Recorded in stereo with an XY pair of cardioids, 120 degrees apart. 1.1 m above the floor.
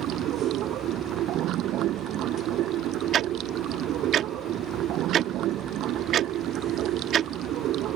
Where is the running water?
70° right.